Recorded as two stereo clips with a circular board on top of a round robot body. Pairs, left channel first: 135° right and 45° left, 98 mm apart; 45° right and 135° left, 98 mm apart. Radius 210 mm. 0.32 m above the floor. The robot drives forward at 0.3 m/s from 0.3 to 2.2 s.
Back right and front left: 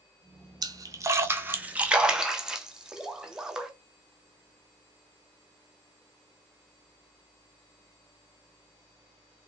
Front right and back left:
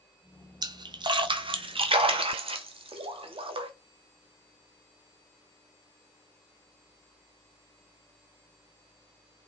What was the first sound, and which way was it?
A splash, 90° left.